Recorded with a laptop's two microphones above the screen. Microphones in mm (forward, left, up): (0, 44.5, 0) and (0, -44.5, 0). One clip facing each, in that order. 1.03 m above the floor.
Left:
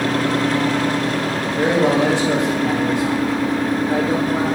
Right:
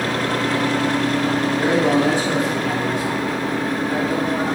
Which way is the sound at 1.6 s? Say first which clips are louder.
Left 3 dB; 80° left.